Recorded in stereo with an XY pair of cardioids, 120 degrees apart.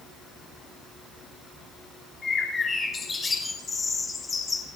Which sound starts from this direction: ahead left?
A bird, at 2.2 s.